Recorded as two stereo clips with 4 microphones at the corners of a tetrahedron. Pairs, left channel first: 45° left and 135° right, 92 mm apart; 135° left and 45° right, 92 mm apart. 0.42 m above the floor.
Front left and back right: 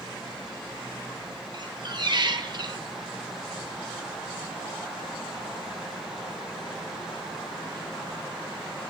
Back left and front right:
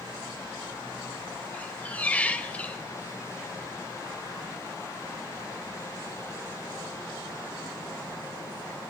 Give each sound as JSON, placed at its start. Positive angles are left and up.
{"t": 1.5, "sound": "a squeak", "azimuth_deg": -155, "distance_m": 0.8}